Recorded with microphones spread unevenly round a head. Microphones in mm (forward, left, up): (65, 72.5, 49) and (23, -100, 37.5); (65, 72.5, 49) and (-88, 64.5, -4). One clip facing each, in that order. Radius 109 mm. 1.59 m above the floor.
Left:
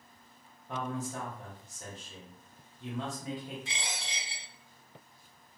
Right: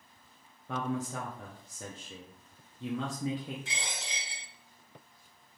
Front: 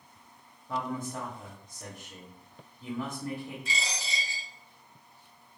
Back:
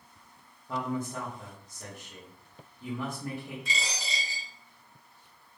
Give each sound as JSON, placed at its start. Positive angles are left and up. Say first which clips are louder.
{"t": 0.7, "sound": "a man speaking", "louder": "right 2 dB, back 1 dB", "azimuth_deg": -90, "distance_m": 0.6}
{"t": 3.6, "sound": "a dropped coin", "louder": "even, even", "azimuth_deg": -155, "distance_m": 2.0}